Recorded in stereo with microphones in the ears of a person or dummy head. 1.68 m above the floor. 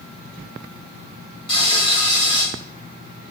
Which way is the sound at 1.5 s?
25° left (ahead or behind).